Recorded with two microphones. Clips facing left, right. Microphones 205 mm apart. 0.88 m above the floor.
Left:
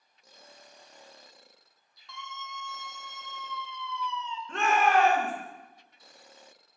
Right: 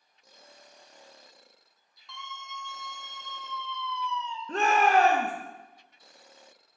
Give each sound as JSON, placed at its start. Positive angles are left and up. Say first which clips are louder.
{"t": 2.1, "sound": "a scream", "louder": "left 1 dB", "side_deg": 0, "distance_m": 1.9}
{"t": 4.5, "sound": "a shout", "louder": "right 1 dB", "side_deg": -35, "distance_m": 0.9}